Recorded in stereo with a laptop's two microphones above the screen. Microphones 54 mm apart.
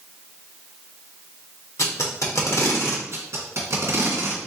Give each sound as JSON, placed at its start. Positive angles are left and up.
{"t": 1.8, "sound": "tape being pulled", "side_deg": 65, "distance_m": 1.1}
{"t": 3.1, "sound": "tape being pulled", "side_deg": -60, "distance_m": 1.6}